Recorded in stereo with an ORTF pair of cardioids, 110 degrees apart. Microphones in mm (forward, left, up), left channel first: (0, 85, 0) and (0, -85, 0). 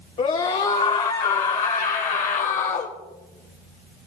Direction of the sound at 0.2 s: 45° left.